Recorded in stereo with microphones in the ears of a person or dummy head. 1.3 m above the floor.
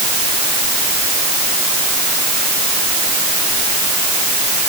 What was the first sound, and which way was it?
Only background noise.